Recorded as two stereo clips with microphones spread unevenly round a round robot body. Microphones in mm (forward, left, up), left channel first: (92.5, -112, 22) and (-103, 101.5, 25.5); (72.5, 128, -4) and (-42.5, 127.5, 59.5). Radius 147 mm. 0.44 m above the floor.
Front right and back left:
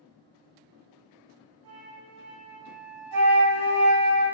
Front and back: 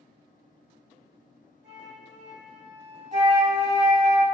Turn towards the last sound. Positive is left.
turn(degrees=150)